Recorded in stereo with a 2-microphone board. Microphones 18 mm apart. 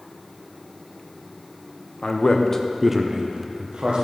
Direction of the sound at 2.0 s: 50° left (ahead or behind).